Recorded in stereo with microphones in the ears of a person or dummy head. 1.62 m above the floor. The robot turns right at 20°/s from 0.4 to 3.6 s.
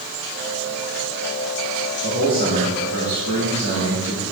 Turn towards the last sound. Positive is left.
turn(degrees=-100)